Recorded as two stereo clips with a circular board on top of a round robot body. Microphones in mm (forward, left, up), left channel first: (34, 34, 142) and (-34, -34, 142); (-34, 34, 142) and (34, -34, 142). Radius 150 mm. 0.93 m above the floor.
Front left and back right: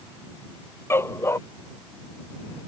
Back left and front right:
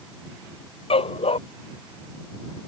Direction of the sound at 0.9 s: 110° left.